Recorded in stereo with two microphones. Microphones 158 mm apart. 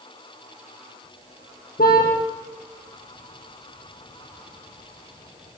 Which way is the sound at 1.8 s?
75° left (ahead or behind).